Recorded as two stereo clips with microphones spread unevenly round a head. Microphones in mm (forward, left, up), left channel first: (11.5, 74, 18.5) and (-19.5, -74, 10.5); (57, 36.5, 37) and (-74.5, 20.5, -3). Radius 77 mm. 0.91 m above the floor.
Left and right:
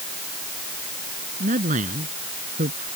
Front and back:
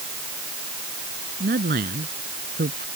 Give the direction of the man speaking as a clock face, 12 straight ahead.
5 o'clock.